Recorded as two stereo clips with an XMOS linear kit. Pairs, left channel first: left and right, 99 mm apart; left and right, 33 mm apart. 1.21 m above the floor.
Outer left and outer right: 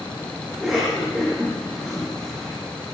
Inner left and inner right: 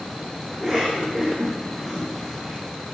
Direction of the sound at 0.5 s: 5° right (ahead or behind).